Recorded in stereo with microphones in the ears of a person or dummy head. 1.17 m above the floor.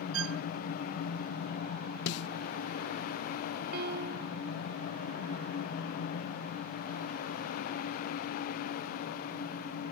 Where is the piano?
60° right (ahead or behind).